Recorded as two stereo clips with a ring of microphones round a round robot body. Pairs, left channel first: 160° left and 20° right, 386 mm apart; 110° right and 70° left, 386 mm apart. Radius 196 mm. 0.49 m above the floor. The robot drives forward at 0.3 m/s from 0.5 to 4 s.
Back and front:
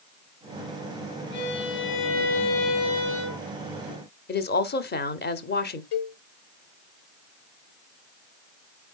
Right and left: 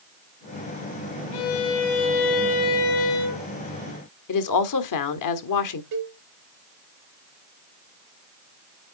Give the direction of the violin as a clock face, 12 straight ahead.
5 o'clock.